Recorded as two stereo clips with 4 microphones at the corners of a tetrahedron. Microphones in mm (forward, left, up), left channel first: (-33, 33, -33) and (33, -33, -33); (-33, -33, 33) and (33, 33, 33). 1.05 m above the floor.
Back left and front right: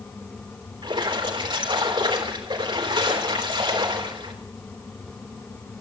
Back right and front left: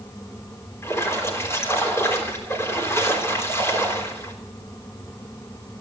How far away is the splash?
About 3.5 m.